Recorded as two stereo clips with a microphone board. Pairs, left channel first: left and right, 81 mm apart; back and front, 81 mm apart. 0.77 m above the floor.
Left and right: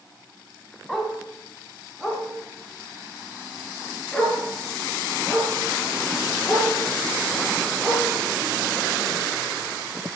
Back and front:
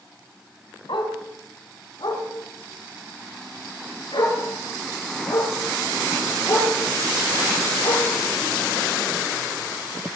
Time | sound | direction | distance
0.9 | a dog barking | 175° left | 2.5 m